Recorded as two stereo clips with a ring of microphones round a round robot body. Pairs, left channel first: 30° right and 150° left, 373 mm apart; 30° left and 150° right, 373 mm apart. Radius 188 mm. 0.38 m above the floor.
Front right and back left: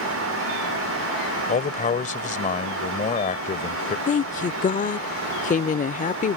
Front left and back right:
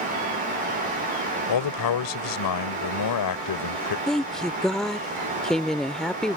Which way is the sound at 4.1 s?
55° right.